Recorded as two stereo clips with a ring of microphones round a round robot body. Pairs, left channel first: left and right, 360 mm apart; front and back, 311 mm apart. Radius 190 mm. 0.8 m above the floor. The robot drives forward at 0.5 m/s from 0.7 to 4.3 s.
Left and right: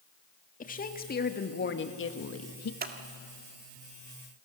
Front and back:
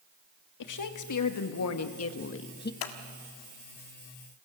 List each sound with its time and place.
0.6 s a woman speaking: 20° left, 1.7 m; by 2.7 s 55° left, 1.0 m
2.8 s scissors: 25° right, 1.6 m